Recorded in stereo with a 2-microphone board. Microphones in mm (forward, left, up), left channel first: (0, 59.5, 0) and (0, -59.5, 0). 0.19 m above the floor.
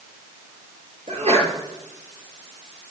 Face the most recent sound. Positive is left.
turn(degrees=-65)  # may be behind; listen again after turning